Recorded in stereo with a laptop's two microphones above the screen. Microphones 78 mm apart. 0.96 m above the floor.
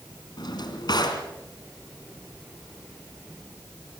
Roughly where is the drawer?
Left.